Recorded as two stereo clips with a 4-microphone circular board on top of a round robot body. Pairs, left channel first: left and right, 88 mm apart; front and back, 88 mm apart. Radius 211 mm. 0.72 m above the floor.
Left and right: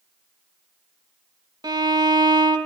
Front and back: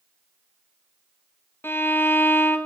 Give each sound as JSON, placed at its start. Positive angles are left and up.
{"t": 1.6, "sound": "a violin", "azimuth_deg": -60, "distance_m": 1.5}